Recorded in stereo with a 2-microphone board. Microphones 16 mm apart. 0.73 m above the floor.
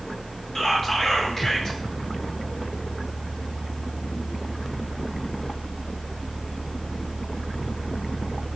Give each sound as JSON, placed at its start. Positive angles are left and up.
{"t": 0.6, "sound": "whispering", "side_deg": 40, "distance_m": 1.9}